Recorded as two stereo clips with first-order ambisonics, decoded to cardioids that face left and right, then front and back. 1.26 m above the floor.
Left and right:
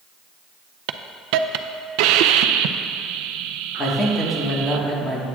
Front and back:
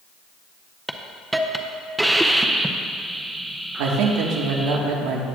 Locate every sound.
0.9 s a hiss: 95° right, 0.6 m
3.8 s a man speaking: 165° left, 1.6 m